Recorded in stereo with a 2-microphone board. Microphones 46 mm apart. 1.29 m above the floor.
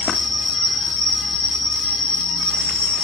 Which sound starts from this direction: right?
An insect, at 0.0 s.